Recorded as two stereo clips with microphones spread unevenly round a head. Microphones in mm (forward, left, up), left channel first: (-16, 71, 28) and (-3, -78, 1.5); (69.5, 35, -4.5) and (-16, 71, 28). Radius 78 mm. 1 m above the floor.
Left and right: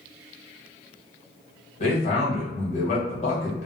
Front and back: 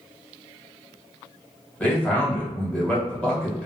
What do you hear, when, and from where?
1.8 s a man speaking: 45° left, 1.3 m